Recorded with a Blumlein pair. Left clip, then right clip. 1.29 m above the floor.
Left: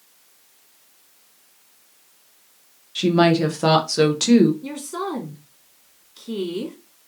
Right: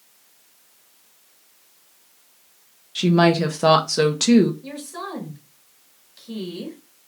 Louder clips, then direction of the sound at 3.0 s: Even; 5° right.